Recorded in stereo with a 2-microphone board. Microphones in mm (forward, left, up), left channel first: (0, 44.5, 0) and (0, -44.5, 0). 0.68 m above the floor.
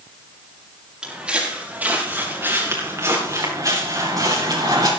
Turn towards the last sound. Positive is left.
turn(degrees=-60)  # may be behind; listen again after turning